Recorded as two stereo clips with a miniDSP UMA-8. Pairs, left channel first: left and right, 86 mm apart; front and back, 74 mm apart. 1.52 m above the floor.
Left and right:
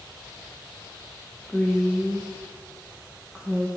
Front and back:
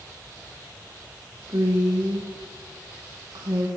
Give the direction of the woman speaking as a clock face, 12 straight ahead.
6 o'clock.